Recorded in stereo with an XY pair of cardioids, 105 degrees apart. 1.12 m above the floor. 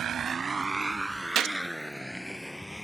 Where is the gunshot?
70° right.